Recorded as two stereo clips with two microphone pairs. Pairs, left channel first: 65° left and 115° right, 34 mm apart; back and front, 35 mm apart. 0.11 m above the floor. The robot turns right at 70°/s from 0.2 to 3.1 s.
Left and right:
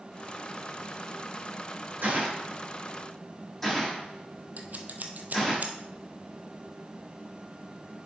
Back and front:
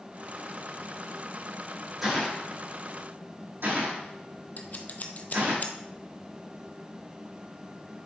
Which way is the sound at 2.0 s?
90° right.